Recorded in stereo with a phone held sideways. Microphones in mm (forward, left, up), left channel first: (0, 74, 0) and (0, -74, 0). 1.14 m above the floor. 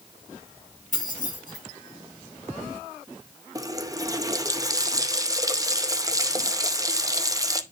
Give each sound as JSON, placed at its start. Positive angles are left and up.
{"t": 0.9, "sound": "keys jangling", "side_deg": 65, "distance_m": 4.5}
{"t": 3.5, "sound": "a running tap", "side_deg": -25, "distance_m": 0.5}